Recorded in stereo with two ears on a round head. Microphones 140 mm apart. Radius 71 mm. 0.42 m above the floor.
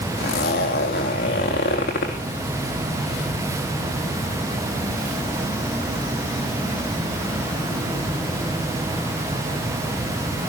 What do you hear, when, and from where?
0.2 s a zipper: 65° left (ahead or behind), 3 m